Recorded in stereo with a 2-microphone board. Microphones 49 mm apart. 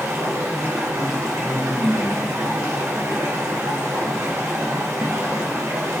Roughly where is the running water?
Right.